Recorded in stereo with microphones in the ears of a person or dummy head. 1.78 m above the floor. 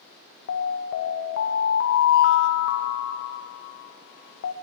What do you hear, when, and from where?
0.5 s an alarm: 55° left (ahead or behind), 0.5 m